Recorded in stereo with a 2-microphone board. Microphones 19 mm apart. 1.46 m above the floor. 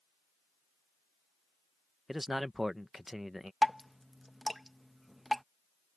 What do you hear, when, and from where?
2.1 s a man speaking: 10° right (ahead or behind)
3.6 s dripping: 10° right (ahead or behind)